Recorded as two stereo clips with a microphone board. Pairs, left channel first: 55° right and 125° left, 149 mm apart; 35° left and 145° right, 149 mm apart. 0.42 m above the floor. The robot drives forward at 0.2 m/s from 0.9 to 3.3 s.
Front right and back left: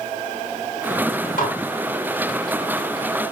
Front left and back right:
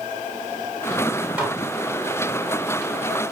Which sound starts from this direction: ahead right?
Dishes clattering, at 1.4 s.